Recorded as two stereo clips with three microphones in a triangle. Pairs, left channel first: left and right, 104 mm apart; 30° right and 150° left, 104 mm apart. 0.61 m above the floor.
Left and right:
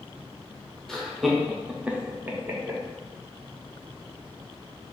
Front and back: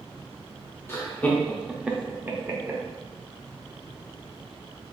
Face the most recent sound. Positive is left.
turn(degrees=-155)